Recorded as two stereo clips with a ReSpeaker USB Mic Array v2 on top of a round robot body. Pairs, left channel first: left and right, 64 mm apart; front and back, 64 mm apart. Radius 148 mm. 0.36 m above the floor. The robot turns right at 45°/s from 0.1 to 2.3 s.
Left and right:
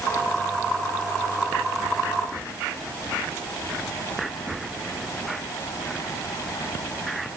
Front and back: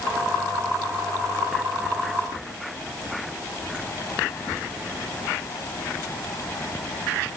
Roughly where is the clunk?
No clunk in this recording.